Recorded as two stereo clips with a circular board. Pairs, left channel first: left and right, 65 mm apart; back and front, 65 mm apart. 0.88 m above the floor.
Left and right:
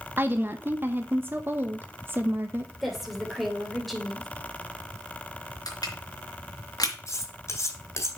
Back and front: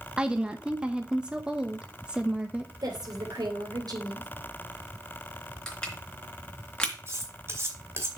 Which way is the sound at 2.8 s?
Straight ahead.